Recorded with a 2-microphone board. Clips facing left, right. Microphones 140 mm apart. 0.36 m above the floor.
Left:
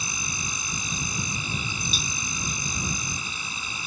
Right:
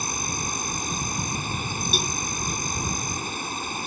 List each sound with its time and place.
0.0 s an insect: 55° right (ahead or behind)
1.9 s a cowbell: 65° right (ahead or behind)